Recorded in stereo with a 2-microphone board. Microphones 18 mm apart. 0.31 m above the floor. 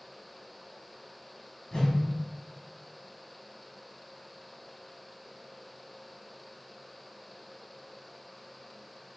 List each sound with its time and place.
1.7 s a whoosh: 35° left (ahead or behind), 0.9 m